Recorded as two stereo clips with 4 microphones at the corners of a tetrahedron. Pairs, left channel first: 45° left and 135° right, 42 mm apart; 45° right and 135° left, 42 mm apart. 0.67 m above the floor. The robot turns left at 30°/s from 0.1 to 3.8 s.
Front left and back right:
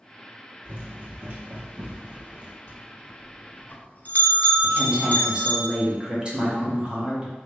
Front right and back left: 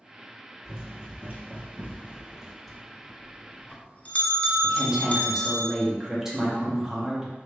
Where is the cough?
I don't hear a cough.